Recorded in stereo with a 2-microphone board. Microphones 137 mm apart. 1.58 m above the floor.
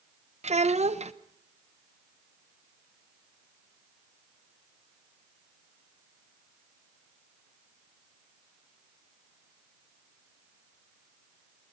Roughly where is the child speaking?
Right.